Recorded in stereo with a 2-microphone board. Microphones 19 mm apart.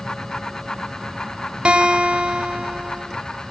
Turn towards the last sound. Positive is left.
turn(degrees=-85)